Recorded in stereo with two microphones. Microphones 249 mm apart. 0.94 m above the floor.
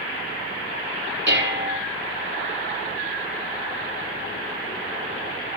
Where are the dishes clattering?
45° right (ahead or behind), 2 m.